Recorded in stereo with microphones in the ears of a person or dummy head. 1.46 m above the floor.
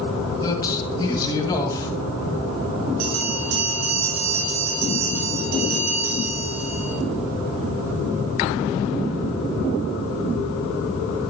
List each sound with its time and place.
0.4 s a man speaking: 20° left (ahead or behind), 2 m
3.0 s a bell: 80° right, 6 m